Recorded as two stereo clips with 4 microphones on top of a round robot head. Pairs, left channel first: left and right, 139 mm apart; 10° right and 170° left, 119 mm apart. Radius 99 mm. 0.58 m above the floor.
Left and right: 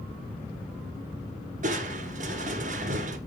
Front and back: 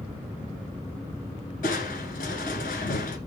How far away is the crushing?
About 1.2 m.